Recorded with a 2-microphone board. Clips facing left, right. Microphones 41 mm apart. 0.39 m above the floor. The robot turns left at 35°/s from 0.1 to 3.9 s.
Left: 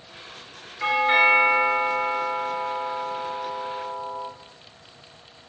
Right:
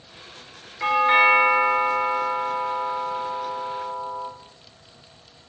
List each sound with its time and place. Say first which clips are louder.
0.8 s a doorbell: right 2 dB; 15° right (ahead or behind), 1.3 m; by 4.3 s 15° left (ahead or behind), 1.3 m